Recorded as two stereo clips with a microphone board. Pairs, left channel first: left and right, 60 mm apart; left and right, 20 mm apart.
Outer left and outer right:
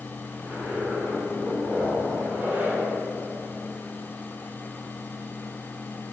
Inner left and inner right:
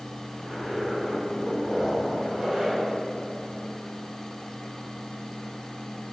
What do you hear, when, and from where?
0.4 s a zipper: 35° right (ahead or behind), 1.5 m